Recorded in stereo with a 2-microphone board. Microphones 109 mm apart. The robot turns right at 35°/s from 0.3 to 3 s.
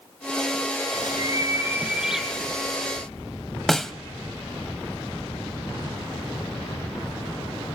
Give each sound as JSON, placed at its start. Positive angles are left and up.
{"t": 0.9, "sound": "a bird", "azimuth_deg": -45, "distance_m": 3.5}
{"t": 3.7, "sound": "a snare drum", "side_deg": 5, "distance_m": 0.8}